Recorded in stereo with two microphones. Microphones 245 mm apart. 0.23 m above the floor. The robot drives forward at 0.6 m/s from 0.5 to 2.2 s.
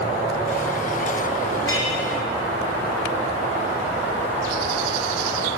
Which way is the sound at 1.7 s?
55° left (ahead or behind).